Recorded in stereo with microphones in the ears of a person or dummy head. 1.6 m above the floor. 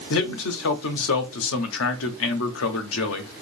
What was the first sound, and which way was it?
A man speaking, 75° left (ahead or behind).